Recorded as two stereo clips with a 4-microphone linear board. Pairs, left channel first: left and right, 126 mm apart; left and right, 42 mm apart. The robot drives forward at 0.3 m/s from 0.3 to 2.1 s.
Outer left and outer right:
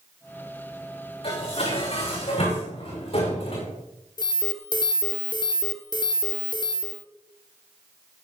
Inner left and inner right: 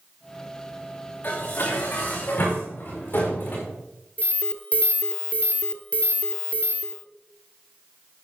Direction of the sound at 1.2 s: 50° left (ahead or behind).